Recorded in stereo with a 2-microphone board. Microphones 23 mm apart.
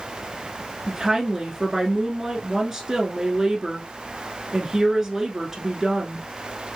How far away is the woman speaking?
About 1.2 m.